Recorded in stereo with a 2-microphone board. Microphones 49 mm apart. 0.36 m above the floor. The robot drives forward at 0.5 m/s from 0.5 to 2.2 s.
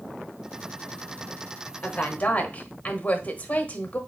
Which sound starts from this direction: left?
A woman speaking, at 1.8 s.